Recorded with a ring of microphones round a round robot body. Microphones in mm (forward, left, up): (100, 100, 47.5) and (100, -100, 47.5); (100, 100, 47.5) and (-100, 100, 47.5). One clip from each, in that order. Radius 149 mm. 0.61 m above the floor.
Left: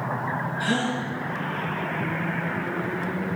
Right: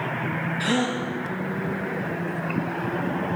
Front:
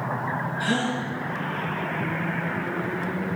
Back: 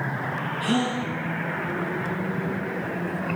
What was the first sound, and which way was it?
A gasp, 50° right.